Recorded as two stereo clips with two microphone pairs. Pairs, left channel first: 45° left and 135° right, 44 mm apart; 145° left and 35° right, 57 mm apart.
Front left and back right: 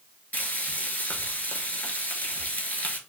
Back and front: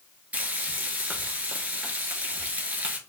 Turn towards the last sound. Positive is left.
turn(degrees=15)